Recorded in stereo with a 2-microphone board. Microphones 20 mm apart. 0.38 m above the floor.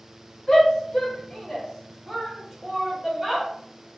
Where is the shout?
35° left (ahead or behind), 1.0 m; by 3.5 s 30° right (ahead or behind), 1.2 m.